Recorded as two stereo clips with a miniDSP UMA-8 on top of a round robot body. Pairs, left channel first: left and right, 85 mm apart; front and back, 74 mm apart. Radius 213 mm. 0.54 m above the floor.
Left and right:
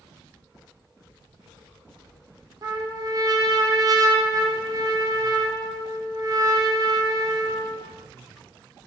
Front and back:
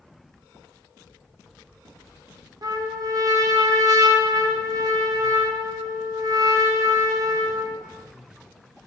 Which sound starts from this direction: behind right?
A trumpet, at 2.6 s.